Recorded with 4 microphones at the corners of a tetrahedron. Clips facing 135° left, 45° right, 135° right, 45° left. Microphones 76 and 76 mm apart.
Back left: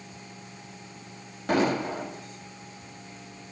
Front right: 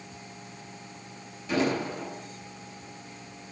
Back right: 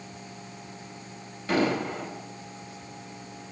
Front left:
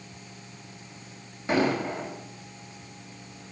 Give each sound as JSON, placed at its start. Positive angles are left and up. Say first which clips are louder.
{"t": 1.5, "sound": "an explosion", "louder": "back left 2 dB, front left 1 dB", "azimuth_deg": 115, "distance_m": 5.0}